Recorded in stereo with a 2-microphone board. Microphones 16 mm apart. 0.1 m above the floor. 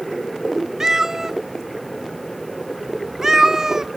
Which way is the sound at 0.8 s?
30° right (ahead or behind).